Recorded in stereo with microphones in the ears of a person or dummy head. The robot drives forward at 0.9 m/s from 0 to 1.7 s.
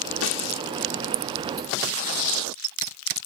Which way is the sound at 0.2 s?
85° left.